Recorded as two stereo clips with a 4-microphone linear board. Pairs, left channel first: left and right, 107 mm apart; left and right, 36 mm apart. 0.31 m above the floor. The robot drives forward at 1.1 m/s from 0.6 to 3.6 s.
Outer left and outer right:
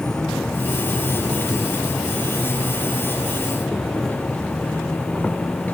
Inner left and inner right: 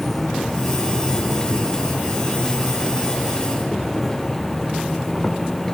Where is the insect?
5° left (ahead or behind).